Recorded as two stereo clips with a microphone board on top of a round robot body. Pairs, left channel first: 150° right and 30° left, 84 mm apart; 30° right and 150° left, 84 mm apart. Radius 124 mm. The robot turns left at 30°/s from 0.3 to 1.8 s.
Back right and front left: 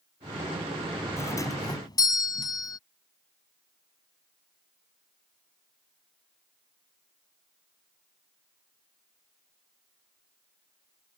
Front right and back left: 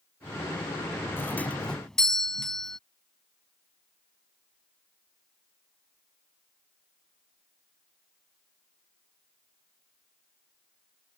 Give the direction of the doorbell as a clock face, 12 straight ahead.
3 o'clock.